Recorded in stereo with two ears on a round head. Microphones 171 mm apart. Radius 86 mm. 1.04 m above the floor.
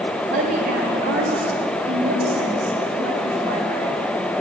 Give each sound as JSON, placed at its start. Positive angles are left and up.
{"t": 0.3, "sound": "a woman speaking", "side_deg": -40, "distance_m": 6.0}